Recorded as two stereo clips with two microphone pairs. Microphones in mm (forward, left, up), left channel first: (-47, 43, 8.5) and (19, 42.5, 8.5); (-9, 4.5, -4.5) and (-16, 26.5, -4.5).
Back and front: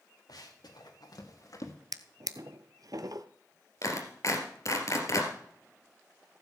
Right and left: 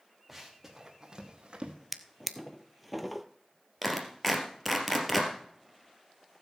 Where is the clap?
160° right, 2.5 m.